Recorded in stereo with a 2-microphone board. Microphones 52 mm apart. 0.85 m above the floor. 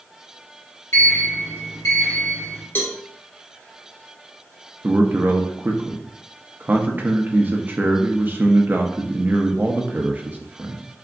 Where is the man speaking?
35° right (ahead or behind), 0.5 m.